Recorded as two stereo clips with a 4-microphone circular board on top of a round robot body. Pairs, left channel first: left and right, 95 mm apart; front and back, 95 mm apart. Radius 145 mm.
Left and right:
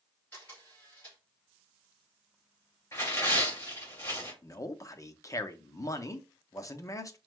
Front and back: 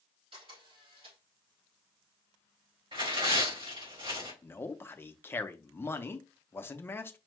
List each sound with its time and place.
0.3 s a camera shutter: 160° left, 3.5 m
2.9 s tearing paper: 150° left, 3 m
4.4 s a man speaking: 55° left, 0.8 m